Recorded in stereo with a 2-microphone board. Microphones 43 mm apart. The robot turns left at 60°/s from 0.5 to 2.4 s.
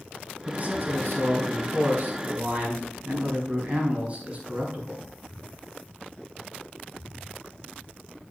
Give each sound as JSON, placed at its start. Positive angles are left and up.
{"t": 0.5, "sound": "a man speaking", "azimuth_deg": -35, "distance_m": 5.0}